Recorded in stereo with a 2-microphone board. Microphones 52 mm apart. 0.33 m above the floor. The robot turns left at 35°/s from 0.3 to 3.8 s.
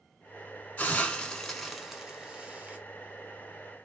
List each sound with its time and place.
0.8 s a hiss: 35° left (ahead or behind), 0.6 m; by 2.8 s 35° right (ahead or behind), 0.6 m